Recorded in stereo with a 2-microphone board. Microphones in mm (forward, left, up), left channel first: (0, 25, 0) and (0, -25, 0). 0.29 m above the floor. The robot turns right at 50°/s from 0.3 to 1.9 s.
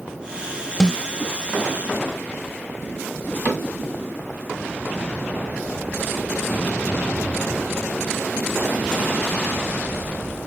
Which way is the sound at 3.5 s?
45° right (ahead or behind).